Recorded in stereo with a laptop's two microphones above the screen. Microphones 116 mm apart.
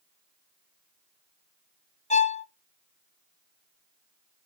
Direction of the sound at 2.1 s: 85° left.